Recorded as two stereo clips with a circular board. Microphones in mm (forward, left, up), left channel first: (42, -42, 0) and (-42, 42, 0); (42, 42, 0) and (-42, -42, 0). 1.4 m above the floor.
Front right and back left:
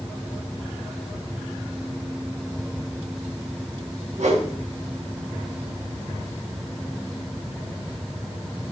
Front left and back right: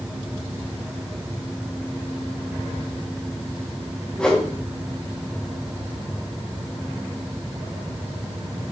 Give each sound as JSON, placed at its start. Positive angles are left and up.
{"t": 4.2, "sound": "a whoosh", "azimuth_deg": 130, "distance_m": 1.7}